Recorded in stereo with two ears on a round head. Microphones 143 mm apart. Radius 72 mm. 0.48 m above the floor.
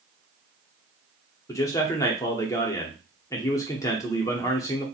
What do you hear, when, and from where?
1.5 s a man speaking: 20° left (ahead or behind), 0.7 m